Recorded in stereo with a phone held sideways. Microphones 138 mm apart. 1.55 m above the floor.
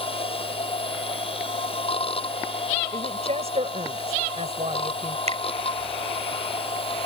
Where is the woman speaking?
50° right (ahead or behind).